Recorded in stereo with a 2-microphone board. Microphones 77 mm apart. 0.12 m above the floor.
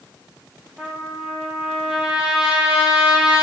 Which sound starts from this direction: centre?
A trumpet, at 0.8 s.